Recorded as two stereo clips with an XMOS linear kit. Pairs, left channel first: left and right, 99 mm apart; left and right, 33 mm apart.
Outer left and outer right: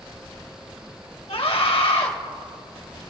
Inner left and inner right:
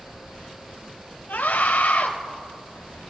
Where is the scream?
75° left (ahead or behind), 2.5 m.